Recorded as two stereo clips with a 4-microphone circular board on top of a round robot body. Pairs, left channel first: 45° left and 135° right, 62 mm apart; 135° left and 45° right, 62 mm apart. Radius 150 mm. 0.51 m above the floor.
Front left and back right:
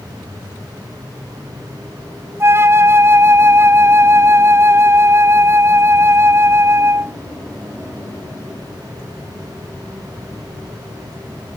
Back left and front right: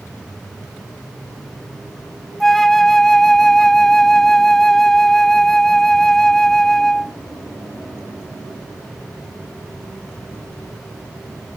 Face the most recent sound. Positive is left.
turn(degrees=-140)